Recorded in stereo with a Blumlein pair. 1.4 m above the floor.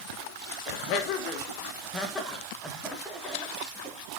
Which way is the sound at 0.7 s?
45° left.